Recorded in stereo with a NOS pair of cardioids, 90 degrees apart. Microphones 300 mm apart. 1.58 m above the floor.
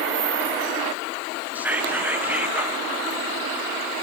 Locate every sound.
1.6 s whispering: 5° right, 1.3 m